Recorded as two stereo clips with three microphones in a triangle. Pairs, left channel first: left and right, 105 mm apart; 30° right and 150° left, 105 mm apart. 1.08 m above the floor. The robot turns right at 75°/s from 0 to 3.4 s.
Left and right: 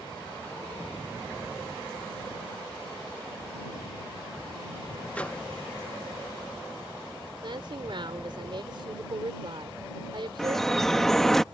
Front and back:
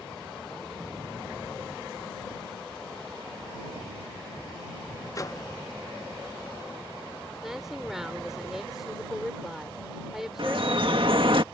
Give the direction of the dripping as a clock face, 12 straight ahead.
6 o'clock.